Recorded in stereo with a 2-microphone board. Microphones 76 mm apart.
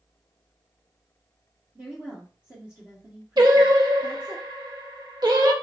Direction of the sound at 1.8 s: 25° right (ahead or behind).